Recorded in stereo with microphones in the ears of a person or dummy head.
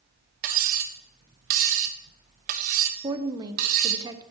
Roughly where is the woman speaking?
Right.